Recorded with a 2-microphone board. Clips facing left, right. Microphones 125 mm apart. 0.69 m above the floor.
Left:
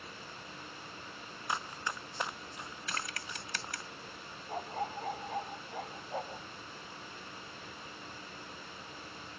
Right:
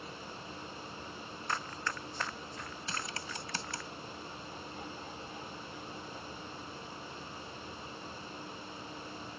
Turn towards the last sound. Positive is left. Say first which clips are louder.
# left 7 dB
turn(degrees=60)  # may be behind; listen again after turning